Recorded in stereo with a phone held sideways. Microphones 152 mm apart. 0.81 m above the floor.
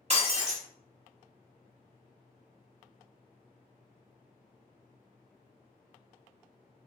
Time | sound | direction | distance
0.1 | breaking glass | 45° right (ahead or behind) | 0.8 m